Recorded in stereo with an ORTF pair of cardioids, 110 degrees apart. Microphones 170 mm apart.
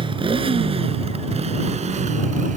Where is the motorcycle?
30° right; by 2.6 s 50° right.